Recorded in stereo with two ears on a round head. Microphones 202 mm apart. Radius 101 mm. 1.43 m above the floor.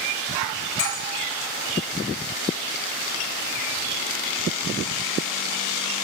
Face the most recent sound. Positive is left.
turn(degrees=60)  # may be behind; listen again after turning